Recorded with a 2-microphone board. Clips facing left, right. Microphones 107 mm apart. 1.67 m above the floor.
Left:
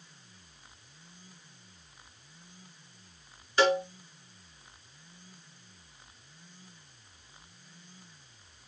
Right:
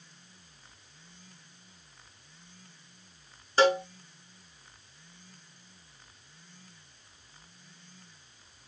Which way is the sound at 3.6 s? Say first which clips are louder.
Right 2 dB; 35° right (ahead or behind).